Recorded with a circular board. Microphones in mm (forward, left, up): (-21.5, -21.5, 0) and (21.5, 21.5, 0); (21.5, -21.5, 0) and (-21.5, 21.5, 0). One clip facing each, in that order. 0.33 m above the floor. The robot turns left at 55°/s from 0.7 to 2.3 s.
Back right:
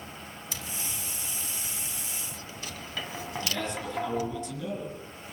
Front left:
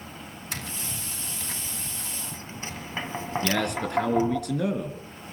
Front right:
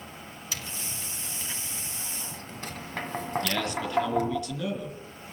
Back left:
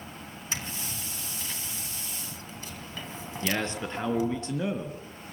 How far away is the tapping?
About 2.5 m.